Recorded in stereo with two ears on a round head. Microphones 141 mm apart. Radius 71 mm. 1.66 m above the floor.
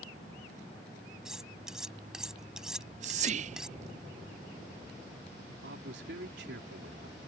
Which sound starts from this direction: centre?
Cutlery clinking, at 1.2 s.